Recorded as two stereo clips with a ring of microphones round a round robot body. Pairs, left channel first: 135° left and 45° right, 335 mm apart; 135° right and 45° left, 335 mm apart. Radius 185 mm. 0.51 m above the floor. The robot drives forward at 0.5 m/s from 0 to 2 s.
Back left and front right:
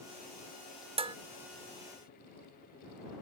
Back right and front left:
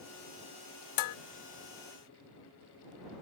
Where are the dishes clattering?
120° right.